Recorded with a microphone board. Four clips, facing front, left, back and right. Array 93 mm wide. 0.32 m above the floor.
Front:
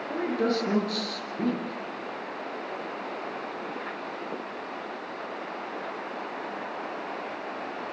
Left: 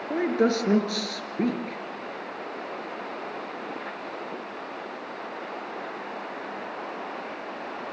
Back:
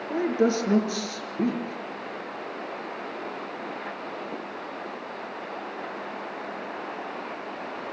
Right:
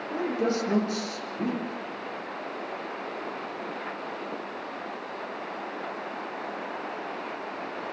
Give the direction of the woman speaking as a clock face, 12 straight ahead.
8 o'clock.